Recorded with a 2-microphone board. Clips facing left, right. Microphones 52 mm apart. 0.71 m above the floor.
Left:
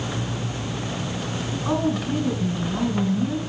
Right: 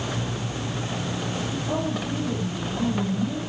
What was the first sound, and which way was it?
A woman speaking, 50° left (ahead or behind).